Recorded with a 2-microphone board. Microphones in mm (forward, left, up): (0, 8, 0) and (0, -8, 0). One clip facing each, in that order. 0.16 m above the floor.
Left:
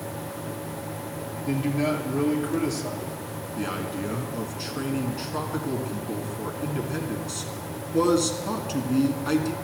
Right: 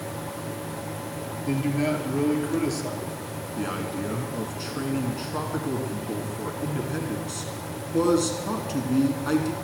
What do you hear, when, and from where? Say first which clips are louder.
1.5 s a man speaking: even; 5° right (ahead or behind), 2.5 m
3.6 s a man speaking: even; 15° left (ahead or behind), 1.8 m